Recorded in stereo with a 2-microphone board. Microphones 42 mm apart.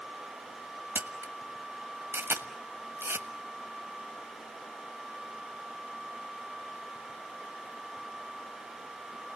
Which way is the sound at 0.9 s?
70° right (ahead or behind).